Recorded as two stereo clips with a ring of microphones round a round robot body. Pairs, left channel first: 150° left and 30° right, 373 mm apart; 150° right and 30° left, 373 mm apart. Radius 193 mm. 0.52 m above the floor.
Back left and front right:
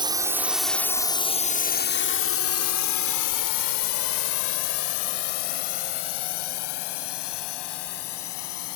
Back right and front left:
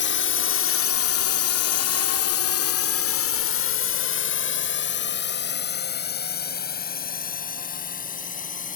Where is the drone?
105° right; by 8.8 s 140° left.